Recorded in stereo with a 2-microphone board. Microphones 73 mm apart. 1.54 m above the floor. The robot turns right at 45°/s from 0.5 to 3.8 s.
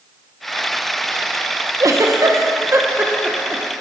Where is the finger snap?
No finger snap in this recording.